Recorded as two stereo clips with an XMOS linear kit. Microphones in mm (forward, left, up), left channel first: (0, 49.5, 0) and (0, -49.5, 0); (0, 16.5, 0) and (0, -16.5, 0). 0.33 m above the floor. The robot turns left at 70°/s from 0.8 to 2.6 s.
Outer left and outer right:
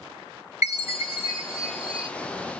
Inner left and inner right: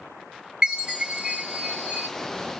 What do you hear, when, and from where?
0.6 s a chime: 30° right, 3.5 m; by 2.1 s 120° right, 3.5 m